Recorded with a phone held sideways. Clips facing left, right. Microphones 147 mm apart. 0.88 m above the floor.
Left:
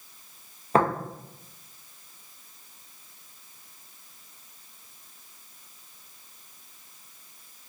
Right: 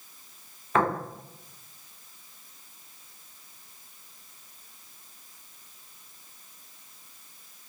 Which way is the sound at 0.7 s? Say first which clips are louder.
Left 3 dB; 35° left (ahead or behind).